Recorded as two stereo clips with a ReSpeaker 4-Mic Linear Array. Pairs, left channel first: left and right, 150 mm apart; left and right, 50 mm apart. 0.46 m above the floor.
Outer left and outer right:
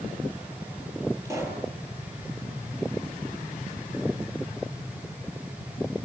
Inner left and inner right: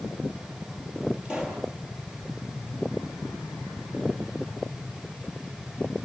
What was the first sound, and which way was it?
A pop, 20° right (ahead or behind).